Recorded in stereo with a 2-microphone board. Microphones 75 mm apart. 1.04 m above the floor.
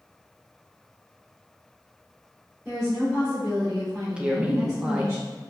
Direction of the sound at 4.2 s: 15° right (ahead or behind).